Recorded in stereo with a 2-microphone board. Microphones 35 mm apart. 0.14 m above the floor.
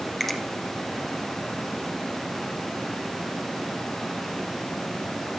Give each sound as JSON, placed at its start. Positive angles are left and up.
{"t": 0.2, "sound": "a finger snap", "side_deg": 5, "distance_m": 3.0}